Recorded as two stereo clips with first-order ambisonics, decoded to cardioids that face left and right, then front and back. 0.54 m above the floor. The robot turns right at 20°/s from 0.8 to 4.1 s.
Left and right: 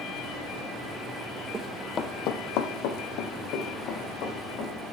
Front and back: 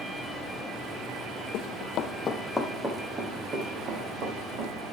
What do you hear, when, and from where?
1.5 s running footsteps: 20° right, 0.9 m; by 4.9 s 140° left, 4.5 m